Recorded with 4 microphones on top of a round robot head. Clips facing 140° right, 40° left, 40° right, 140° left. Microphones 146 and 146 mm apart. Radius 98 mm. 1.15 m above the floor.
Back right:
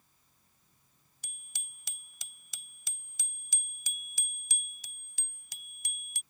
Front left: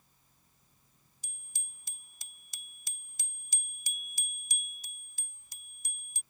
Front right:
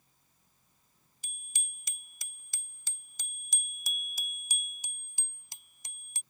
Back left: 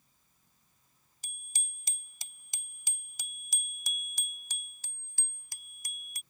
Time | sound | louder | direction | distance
1.2 | a bicycle bell | back right 4 dB, back left 1 dB | 170° right | ?